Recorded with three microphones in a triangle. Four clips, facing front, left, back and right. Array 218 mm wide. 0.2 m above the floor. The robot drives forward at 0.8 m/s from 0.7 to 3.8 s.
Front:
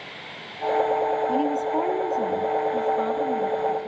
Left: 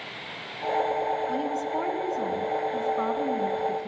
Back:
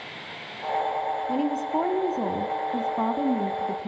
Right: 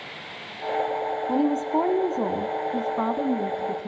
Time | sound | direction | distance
1.3 | a woman speaking | 85° right | 1.8 m